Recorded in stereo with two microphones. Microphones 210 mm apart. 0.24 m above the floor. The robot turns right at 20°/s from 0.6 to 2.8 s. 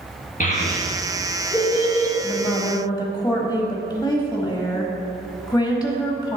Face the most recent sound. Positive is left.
turn(degrees=20)  # may be behind; listen again after turning